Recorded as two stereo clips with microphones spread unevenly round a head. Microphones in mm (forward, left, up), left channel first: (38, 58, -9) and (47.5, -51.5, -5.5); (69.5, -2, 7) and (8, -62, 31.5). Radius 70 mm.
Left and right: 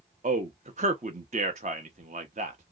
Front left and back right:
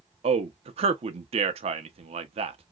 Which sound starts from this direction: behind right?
A man speaking, at 0.2 s.